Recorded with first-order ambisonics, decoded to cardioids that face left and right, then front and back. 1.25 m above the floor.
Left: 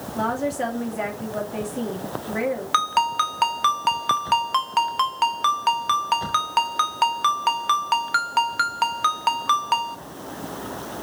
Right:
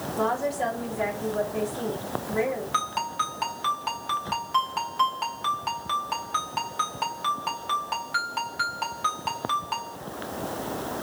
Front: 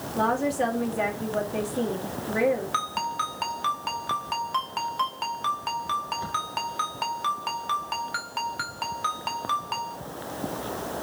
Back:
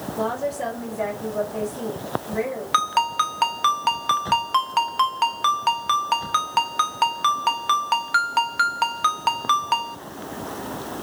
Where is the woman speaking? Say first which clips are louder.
Left 2 dB, front 2 dB; 65° left, 2.0 m.